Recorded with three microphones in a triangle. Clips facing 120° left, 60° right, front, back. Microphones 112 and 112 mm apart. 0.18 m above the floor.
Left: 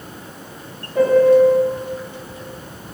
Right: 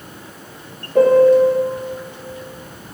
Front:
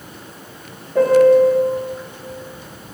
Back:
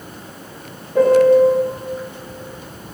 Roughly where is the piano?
Right.